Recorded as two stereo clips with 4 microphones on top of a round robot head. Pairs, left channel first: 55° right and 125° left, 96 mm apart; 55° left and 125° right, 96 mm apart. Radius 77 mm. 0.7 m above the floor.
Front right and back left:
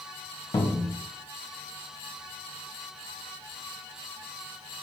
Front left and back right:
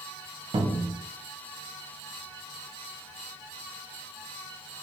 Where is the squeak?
No squeak in this recording.